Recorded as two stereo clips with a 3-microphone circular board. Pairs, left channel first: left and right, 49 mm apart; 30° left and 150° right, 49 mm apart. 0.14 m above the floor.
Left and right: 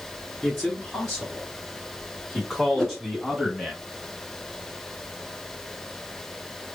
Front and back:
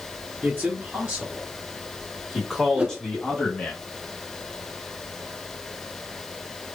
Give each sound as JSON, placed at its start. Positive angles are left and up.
{"t": 0.4, "sound": "a man speaking", "azimuth_deg": 165, "distance_m": 1.6}
{"t": 2.8, "sound": "a whoosh", "azimuth_deg": 160, "distance_m": 0.6}